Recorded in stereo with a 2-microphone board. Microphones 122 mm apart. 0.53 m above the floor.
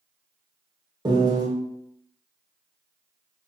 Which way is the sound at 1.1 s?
35° right (ahead or behind).